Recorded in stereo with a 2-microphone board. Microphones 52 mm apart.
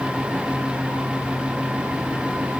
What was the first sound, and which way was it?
Only background noise.